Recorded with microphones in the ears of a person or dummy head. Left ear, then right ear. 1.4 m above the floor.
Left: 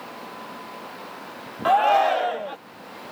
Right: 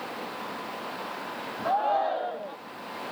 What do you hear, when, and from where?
1.6 s a shout: 70° left (ahead or behind)